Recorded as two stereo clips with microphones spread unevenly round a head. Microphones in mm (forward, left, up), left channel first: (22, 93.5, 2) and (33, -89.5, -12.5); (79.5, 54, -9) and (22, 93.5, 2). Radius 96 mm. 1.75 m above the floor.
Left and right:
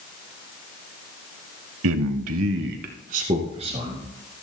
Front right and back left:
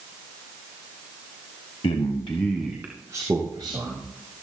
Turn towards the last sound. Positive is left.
turn(degrees=-150)